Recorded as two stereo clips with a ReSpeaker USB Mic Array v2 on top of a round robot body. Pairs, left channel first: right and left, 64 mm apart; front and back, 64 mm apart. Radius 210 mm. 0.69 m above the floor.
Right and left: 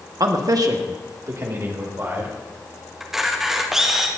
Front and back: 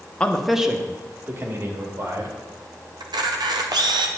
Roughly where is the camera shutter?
Behind.